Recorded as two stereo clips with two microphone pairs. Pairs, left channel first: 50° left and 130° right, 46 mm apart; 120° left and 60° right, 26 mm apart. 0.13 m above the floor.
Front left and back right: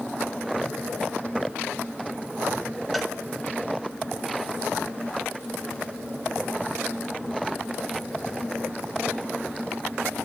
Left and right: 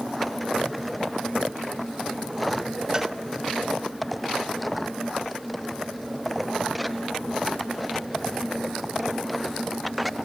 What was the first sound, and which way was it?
A cowbell, 35° right.